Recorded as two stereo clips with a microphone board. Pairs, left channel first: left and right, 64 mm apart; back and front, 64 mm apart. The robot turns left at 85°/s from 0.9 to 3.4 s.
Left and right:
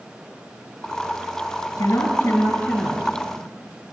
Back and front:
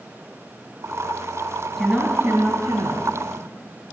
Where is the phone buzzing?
No phone buzzing in this recording.